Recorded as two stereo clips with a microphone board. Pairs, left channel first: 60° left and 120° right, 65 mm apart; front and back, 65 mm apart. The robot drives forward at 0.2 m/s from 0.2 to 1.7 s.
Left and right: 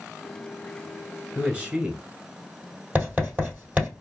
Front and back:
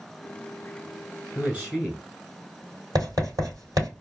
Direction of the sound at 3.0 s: 175° left.